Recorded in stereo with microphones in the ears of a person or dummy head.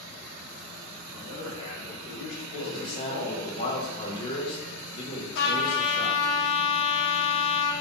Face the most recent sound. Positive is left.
turn(degrees=60)  # may be behind; listen again after turning